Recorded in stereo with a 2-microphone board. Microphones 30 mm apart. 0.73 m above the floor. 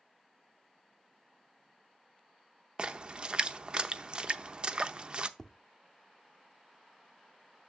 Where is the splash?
30° right (ahead or behind), 0.6 m.